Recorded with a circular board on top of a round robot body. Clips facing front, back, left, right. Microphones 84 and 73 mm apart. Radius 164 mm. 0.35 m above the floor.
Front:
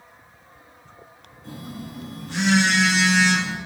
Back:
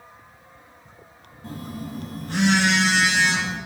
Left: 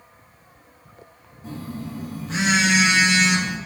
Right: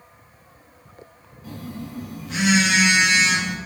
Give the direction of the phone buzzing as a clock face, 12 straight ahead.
7 o'clock.